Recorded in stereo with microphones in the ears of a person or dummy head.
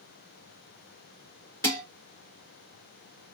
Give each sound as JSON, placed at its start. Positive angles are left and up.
{"t": 1.6, "sound": "dishes clattering", "side_deg": 20, "distance_m": 2.5}